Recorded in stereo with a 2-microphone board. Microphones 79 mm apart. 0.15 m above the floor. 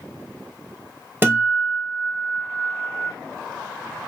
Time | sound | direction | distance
1.2 | a guitar | 25° right (ahead or behind) | 1.5 m